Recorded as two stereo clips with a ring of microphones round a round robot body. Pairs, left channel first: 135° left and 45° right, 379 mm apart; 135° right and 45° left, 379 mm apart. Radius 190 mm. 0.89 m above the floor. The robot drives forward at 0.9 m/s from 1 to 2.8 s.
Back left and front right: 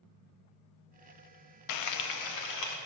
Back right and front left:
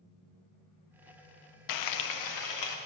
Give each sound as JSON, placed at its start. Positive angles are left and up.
{"t": 1.7, "sound": "frying", "azimuth_deg": 180, "distance_m": 0.5}